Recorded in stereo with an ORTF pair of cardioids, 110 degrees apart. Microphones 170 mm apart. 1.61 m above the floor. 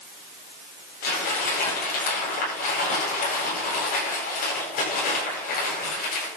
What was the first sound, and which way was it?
Crumpling, 60° left.